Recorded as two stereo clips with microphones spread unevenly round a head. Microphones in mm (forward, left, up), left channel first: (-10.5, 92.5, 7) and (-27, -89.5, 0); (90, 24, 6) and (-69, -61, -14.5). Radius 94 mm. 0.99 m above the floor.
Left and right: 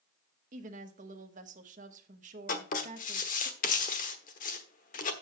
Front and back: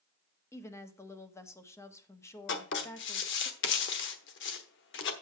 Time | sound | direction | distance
0.5 | a woman speaking | 50° right | 1.1 m
2.5 | writing | 40° left | 1.1 m